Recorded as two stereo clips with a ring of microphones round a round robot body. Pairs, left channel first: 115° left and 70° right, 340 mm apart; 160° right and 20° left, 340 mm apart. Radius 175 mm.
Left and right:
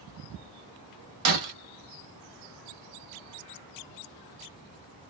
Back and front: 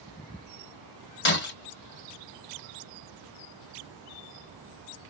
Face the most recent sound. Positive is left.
turn(degrees=-100)